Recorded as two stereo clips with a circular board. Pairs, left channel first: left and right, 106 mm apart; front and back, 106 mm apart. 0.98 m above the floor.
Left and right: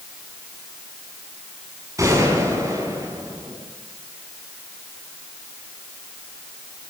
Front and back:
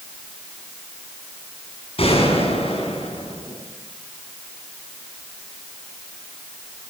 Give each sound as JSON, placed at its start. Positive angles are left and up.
{"t": 2.0, "sound": "a gunshot", "azimuth_deg": -30, "distance_m": 7.0}